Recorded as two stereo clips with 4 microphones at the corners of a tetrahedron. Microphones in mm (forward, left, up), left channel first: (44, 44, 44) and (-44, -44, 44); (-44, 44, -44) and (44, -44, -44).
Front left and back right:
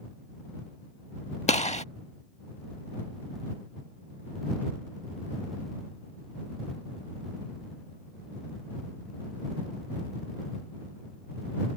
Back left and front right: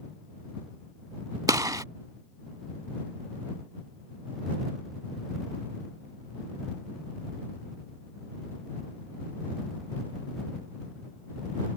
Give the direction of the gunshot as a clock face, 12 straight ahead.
11 o'clock.